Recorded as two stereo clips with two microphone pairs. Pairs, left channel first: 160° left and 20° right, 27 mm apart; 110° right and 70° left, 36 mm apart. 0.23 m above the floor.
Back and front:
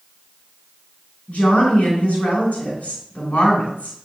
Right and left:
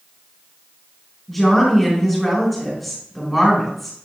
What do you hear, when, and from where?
1.3 s a woman speaking: 165° left, 3 m